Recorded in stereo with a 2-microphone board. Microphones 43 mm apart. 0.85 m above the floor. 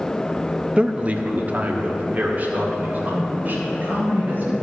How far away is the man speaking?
About 0.5 m.